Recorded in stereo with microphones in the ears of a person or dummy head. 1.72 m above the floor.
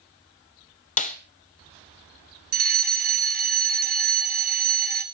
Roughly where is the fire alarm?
Right.